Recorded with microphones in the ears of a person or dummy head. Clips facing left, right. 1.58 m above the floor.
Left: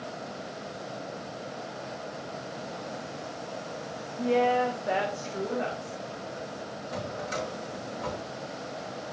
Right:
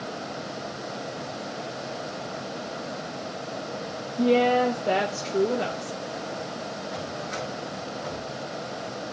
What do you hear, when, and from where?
4.2 s a woman speaking: 45° right (ahead or behind), 1.0 m
6.9 s a drawer: 40° left (ahead or behind), 4.5 m